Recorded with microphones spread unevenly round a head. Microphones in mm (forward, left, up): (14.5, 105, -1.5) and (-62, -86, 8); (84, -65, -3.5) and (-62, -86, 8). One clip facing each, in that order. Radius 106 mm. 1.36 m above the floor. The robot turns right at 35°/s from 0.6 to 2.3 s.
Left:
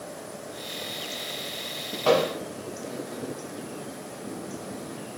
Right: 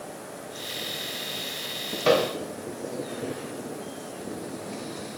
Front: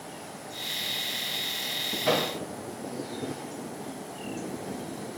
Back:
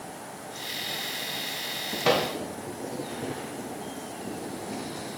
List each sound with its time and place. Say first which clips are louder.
2.0 s a microwave: even, back 2 dB; 175° right, 1.1 m; by 2.3 s 165° right, 1.1 m